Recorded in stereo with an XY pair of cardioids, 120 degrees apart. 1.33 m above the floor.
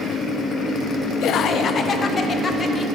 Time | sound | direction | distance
1.2 | laughter | 70° left | 0.8 m